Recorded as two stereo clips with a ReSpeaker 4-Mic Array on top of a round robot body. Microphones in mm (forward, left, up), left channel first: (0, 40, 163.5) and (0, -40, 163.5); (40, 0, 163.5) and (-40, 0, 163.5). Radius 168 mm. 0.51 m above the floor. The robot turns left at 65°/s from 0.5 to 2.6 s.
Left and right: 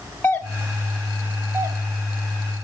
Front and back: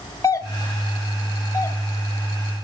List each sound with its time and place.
0.2 s a doorbell: 40° left, 2.5 m; by 2.6 s 100° right, 2.5 m